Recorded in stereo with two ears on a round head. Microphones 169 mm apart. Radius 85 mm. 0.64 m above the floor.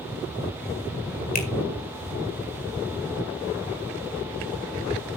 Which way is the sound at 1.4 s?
45° left (ahead or behind).